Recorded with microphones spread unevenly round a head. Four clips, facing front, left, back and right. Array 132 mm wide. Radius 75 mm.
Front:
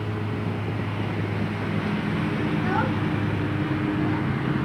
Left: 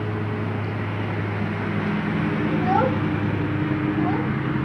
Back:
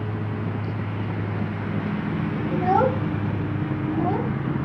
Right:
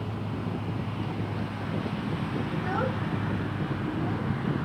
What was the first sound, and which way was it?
A lawn mower, 75° left.